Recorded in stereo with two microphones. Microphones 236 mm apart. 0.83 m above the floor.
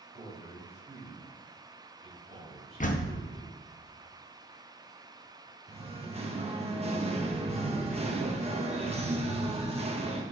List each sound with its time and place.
0.1 s a man speaking: 25° right (ahead or behind), 3.5 m
2.8 s a door slam: 35° left (ahead or behind), 0.7 m
5.7 s singing: 25° right (ahead or behind), 1.0 m